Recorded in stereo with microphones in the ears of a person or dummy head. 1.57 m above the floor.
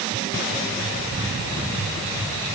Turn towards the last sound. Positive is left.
No sound to turn to.